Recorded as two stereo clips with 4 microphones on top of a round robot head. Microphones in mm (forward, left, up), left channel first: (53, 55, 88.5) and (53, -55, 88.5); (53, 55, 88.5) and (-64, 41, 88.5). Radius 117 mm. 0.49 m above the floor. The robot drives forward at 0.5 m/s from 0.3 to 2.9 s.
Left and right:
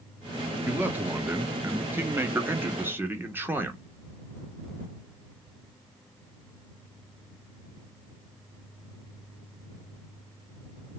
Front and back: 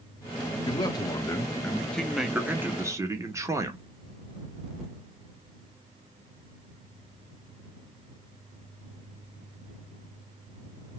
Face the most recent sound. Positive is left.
turn(degrees=-140)